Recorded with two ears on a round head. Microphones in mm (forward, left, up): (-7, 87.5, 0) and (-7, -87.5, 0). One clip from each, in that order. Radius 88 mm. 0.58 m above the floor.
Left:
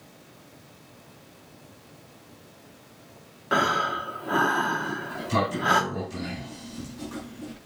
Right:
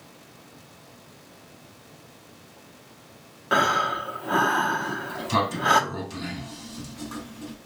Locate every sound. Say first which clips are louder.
3.5 s breathing: right 2 dB; 15° right (ahead or behind), 0.9 m
4.8 s a sliding door: right 1 dB; 35° right (ahead or behind), 4.5 m